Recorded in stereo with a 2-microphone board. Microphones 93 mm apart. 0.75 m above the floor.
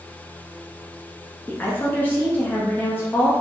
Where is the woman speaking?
20° left (ahead or behind), 0.7 m.